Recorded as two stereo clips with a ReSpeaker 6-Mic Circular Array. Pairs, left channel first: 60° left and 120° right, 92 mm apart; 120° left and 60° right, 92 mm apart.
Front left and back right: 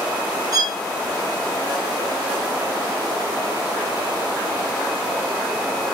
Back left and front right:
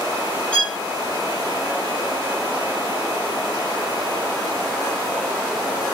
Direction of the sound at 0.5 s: 165° right.